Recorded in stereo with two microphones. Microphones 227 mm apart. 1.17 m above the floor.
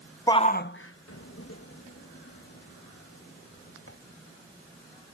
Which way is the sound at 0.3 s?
15° left (ahead or behind).